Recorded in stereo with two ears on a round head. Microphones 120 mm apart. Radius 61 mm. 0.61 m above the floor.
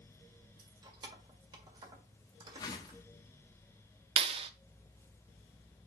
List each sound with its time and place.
0.6 s keys jangling: 30° right (ahead or behind), 1.5 m
2.6 s a whoosh: 30° left (ahead or behind), 1.4 m
4.2 s a clap: 40° right (ahead or behind), 0.5 m